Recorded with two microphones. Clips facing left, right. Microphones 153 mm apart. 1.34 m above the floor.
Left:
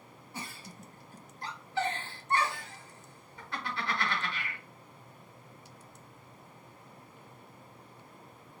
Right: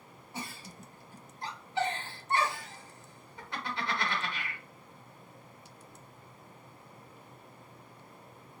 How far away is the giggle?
About 1.1 m.